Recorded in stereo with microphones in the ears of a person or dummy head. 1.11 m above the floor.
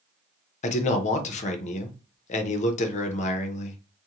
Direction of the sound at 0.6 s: 40° left (ahead or behind).